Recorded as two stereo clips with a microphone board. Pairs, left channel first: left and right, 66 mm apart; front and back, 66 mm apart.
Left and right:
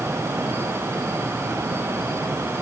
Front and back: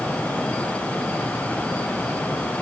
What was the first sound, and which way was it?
Only background noise.